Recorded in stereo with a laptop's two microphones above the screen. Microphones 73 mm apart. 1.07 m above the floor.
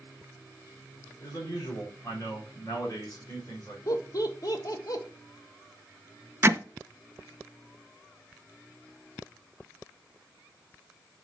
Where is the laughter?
55° left (ahead or behind), 1.3 m.